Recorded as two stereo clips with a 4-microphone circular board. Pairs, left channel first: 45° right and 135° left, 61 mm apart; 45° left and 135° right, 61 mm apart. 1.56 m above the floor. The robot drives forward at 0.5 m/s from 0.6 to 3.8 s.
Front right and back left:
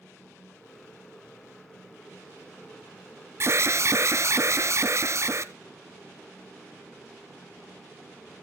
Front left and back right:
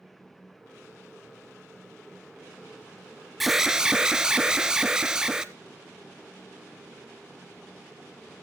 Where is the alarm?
140° left, 0.8 m; by 5.5 s 150° left, 0.9 m.